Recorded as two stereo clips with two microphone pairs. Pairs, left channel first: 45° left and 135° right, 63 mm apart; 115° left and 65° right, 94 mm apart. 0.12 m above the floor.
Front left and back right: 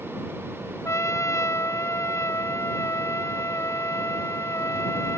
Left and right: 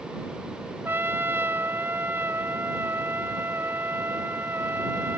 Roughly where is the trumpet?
Ahead.